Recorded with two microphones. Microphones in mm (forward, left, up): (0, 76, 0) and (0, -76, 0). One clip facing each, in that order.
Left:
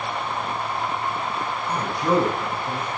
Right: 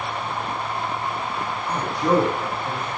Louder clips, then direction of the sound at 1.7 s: Right 1 dB; 20° right (ahead or behind).